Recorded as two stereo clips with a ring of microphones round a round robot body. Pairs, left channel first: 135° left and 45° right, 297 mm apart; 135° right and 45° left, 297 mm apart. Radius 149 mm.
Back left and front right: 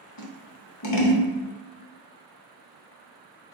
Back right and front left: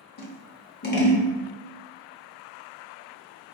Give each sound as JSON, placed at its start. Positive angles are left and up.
{"t": 0.2, "sound": "scissors", "azimuth_deg": 170, "distance_m": 0.7}